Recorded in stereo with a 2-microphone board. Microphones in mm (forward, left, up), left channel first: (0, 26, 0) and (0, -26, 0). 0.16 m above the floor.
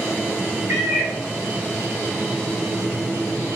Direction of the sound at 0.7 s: 55° right (ahead or behind).